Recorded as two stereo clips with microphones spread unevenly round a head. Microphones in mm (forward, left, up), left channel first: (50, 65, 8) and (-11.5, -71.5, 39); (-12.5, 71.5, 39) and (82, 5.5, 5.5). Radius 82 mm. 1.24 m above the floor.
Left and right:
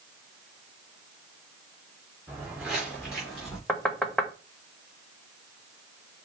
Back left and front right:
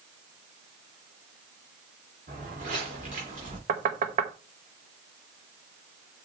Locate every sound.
2.3 s footsteps: 35° right, 5 m; by 3.6 s 30° right, 4 m
3.7 s knocking: 20° right, 1.0 m